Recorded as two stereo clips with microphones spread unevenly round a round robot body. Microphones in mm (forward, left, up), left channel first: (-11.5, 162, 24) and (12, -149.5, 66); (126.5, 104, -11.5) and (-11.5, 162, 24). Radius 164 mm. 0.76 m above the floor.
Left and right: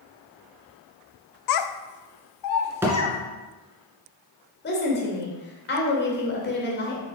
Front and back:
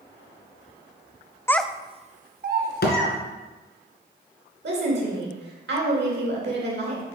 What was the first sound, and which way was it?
A child speaking, 55° left.